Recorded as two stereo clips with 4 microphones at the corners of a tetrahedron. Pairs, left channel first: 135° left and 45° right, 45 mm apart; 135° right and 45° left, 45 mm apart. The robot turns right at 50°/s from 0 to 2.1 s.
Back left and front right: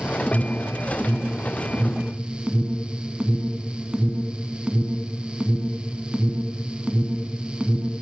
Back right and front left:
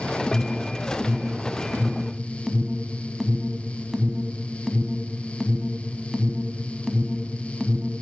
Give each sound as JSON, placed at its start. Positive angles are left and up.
{"t": 0.3, "sound": "an alarm", "azimuth_deg": -120, "distance_m": 1.1}